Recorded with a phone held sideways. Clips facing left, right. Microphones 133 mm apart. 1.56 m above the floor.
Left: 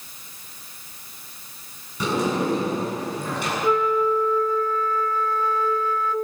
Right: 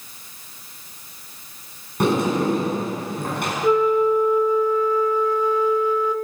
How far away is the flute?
About 0.8 m.